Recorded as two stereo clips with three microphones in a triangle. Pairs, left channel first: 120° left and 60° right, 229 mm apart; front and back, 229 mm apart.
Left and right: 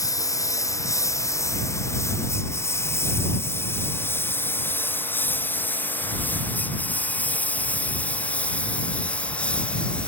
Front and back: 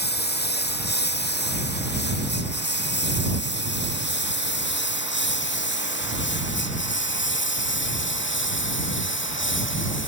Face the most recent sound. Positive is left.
turn(degrees=35)